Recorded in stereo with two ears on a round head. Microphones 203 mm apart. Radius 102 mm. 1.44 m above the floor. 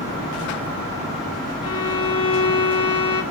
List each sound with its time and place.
1.6 s a violin: 20° left (ahead or behind), 0.6 m